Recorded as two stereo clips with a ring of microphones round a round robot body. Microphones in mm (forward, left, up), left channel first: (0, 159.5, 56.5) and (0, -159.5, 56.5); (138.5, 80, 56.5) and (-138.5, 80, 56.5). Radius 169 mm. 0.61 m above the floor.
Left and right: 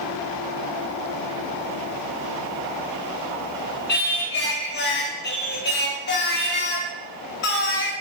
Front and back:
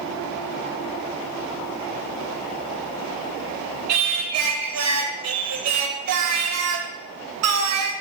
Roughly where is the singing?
Behind left.